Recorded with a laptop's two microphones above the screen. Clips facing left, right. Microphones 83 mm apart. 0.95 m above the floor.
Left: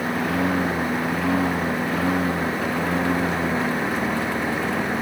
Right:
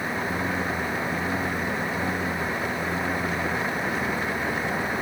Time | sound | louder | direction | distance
0.0 | a lawn mower | left 5 dB | 80° left | ?